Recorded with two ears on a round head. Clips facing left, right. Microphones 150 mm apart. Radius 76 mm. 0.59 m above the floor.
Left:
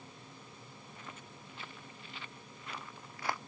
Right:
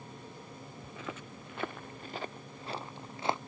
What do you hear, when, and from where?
0.8 s footsteps: 65° right (ahead or behind); by 3.4 s 20° right (ahead or behind)